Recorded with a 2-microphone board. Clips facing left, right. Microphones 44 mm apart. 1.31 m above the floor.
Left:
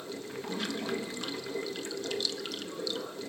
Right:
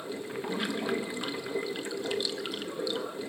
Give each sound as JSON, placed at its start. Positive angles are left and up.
{"t": 0.0, "sound": "running water", "side_deg": -20, "distance_m": 1.1}